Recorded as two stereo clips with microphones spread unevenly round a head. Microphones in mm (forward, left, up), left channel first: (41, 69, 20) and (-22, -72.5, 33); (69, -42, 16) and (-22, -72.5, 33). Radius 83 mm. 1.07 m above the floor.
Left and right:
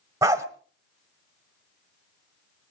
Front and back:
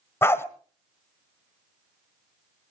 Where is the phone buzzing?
I don't hear a phone buzzing.